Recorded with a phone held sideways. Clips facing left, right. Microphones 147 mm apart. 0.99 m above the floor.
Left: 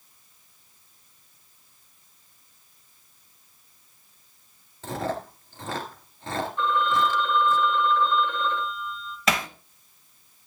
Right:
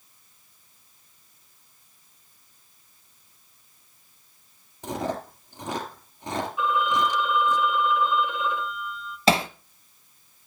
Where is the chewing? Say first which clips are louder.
Even; 15° right (ahead or behind), 2.5 m.